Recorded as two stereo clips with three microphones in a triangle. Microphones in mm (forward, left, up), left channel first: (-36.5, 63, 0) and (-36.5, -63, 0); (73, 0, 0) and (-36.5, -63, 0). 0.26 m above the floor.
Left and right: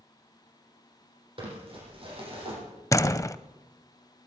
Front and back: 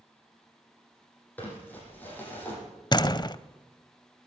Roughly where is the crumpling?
Ahead right.